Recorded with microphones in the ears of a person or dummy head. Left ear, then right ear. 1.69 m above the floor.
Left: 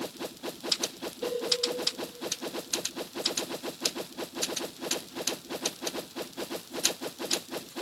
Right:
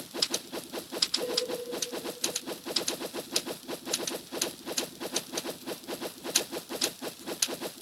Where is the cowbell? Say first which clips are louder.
Right 1 dB; 5° left (ahead or behind), 2.5 m.